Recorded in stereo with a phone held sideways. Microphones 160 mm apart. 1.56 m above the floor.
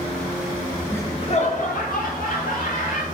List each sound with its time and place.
0.9 s laughter: 10° left (ahead or behind), 0.6 m; by 3.0 s 85° left, 1.6 m